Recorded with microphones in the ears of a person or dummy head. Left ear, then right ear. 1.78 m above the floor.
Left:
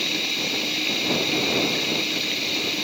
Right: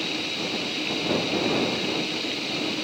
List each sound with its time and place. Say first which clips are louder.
0.0 s running water: left 4 dB; 20° left (ahead or behind)